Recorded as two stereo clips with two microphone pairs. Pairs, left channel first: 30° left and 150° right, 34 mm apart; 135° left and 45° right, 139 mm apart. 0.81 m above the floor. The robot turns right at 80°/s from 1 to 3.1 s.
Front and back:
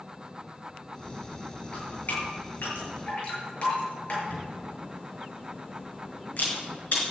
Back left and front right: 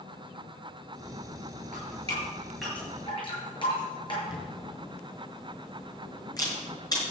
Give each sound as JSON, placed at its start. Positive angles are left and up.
{"t": 1.7, "sound": "dripping", "azimuth_deg": -30, "distance_m": 6.5}
{"t": 4.3, "sound": "a camera shutter", "azimuth_deg": 70, "distance_m": 4.5}